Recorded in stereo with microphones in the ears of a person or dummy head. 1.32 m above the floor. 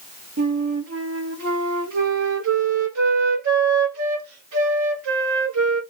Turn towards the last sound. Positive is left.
turn(degrees=-80)